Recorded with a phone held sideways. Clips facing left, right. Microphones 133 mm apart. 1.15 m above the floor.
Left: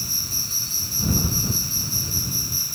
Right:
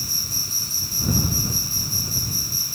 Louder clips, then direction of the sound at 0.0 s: Even; 40° right (ahead or behind).